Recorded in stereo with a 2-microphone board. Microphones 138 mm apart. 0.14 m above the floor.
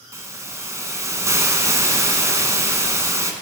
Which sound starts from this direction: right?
A hiss, at 0.1 s.